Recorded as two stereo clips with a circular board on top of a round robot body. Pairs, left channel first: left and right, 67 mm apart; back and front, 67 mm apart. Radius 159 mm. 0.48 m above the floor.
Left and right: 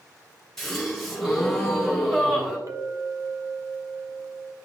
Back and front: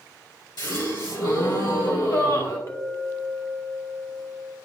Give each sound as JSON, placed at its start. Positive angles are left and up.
{"t": 0.6, "sound": "a gasp", "azimuth_deg": 175, "distance_m": 2.5}
{"t": 2.7, "sound": "a clink", "azimuth_deg": -130, "distance_m": 0.9}